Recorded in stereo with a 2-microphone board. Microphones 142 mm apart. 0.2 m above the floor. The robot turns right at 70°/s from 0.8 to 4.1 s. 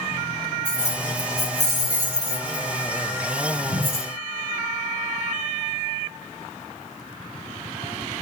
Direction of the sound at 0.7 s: 10° left (ahead or behind).